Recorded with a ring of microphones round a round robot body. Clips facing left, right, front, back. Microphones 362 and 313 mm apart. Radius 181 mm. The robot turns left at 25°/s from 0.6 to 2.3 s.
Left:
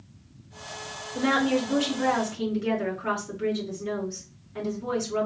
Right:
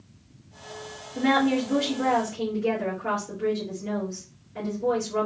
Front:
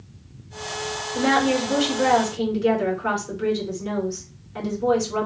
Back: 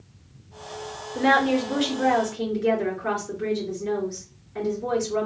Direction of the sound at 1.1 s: 60° left.